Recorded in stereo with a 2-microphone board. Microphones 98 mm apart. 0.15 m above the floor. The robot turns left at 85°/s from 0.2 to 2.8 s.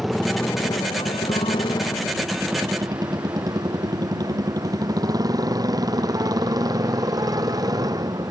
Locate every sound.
0.0 s a motorcycle: straight behind; by 8.3 s 40° right